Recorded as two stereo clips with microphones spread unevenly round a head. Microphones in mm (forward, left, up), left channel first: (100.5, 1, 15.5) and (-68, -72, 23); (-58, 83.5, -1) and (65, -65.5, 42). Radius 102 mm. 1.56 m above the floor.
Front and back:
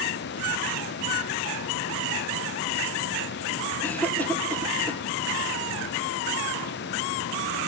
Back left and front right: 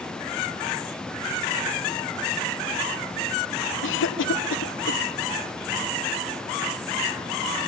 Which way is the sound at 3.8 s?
105° left.